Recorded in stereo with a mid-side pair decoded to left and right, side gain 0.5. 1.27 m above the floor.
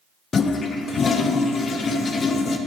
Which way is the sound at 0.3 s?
40° left.